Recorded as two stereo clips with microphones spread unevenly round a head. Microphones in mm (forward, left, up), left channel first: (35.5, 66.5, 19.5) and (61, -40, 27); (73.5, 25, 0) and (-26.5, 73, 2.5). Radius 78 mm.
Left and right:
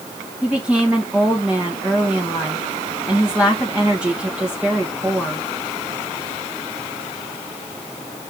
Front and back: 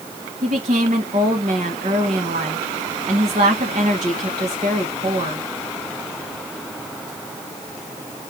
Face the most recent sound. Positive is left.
turn(degrees=-160)